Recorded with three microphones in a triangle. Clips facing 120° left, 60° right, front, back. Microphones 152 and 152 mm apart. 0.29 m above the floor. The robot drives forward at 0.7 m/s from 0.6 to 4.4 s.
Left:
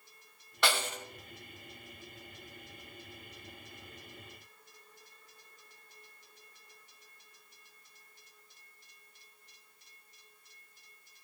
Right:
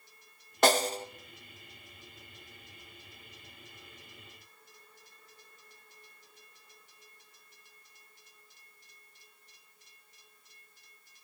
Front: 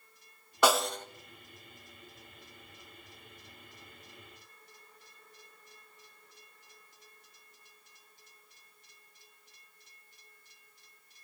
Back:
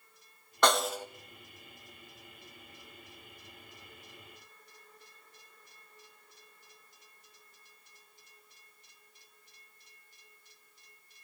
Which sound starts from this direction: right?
A snare drum, at 0.6 s.